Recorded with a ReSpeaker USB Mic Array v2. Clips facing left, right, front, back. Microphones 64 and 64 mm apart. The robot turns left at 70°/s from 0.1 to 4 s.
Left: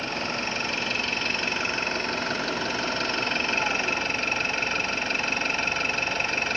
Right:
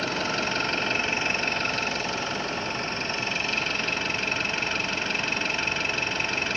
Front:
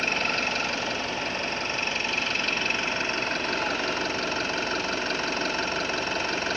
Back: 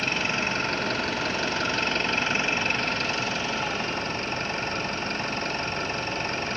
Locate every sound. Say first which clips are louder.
0.0 s an engine running: right 2 dB, even; 90° right, 7 m; by 6.6 s straight ahead, 7 m